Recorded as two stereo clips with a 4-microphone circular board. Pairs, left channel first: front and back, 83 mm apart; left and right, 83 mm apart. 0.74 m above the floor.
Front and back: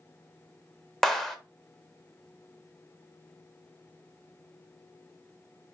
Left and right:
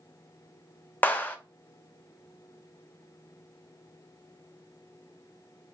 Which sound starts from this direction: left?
A clap, at 1.0 s.